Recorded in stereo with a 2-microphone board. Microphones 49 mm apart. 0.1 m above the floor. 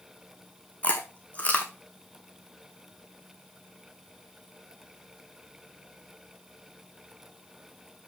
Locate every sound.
0.8 s chewing: 30° left (ahead or behind), 2 m